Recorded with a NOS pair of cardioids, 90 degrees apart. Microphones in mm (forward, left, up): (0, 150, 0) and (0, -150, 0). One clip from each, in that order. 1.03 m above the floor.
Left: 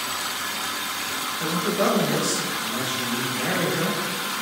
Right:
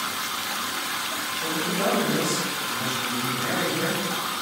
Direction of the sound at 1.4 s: 45° left.